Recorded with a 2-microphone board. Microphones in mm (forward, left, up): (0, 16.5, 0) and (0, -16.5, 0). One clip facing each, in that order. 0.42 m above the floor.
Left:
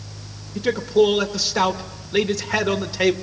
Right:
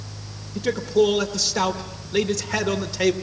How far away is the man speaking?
About 0.8 m.